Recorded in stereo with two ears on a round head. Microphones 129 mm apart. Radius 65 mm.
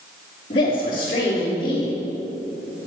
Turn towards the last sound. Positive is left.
turn(degrees=35)  # may be behind; listen again after turning